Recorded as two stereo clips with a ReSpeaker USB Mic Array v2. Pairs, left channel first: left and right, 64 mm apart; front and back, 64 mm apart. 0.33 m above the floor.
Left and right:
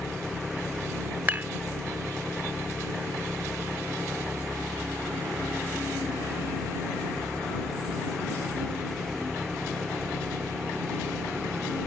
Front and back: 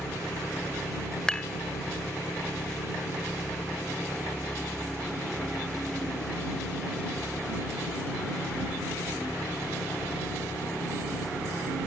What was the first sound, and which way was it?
An engine running, 10° left.